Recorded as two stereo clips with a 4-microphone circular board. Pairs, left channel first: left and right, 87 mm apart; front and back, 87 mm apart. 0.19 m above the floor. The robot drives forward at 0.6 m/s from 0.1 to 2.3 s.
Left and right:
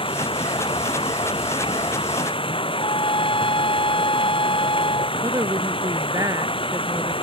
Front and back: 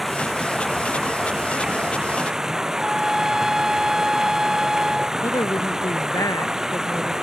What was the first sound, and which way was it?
Running water, 90° left.